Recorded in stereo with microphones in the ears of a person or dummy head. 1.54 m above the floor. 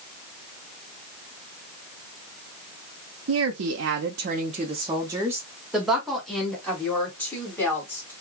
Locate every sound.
3.3 s a woman speaking: 85° right, 0.7 m; by 8.1 s 15° left (ahead or behind), 2.5 m